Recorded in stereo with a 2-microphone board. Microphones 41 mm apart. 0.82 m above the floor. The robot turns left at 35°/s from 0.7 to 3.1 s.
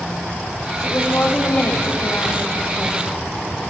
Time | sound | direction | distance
0.8 | a woman speaking | 115° left | 0.9 m